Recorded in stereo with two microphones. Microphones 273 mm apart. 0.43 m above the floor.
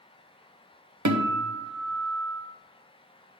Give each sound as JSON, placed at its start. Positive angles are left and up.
{"t": 1.1, "sound": "a guitar", "side_deg": -80, "distance_m": 0.7}